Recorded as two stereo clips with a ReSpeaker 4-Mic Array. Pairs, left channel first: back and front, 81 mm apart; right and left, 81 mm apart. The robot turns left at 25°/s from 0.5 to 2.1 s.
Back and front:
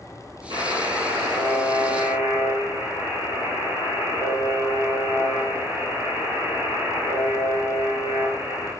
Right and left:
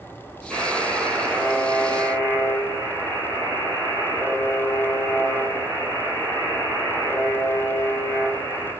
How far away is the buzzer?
About 1.6 m.